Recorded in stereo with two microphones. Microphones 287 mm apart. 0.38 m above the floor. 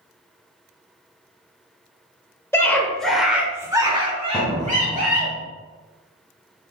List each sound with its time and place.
2.5 s a scream: 10° left (ahead or behind), 1.0 m; by 5.3 s 30° right (ahead or behind), 1.2 m
4.3 s a door slam: centre (ahead or behind), 1.1 m